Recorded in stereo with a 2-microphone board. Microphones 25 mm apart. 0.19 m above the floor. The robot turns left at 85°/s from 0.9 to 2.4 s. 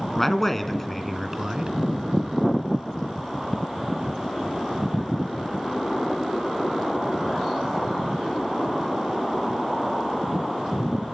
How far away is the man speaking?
About 2.5 m.